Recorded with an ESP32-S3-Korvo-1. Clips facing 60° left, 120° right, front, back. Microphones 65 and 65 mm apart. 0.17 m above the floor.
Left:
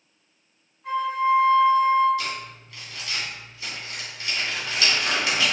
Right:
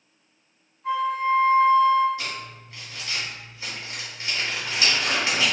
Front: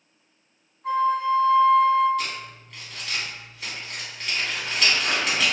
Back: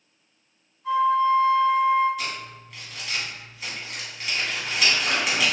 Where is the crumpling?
100° right, 1.1 m.